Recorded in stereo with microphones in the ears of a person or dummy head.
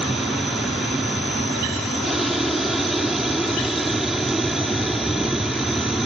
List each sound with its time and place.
0.0 s an aircraft: centre (ahead or behind)